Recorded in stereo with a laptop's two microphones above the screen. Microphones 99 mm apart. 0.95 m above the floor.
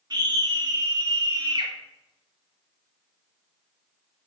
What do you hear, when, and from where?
0.1 s a scream: 45° right (ahead or behind), 1.2 m